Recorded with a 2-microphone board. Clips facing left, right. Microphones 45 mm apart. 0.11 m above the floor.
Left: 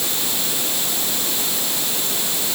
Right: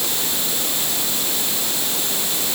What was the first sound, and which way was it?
Only background noise.